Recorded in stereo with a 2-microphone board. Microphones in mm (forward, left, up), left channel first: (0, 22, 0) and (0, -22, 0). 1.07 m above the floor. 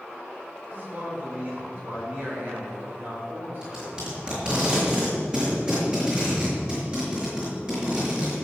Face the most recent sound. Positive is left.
turn(degrees=-20)  # may be behind; listen again after turning